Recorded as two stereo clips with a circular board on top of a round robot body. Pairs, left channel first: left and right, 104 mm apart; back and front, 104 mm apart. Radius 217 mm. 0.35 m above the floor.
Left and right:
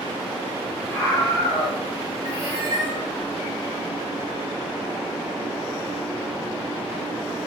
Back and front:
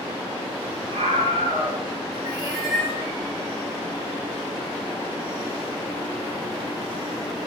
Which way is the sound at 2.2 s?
50° left.